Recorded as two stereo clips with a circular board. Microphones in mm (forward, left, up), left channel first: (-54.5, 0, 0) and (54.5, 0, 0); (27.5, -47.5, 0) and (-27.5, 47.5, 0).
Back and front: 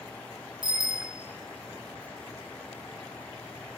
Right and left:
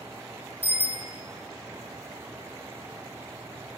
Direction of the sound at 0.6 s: 135° right.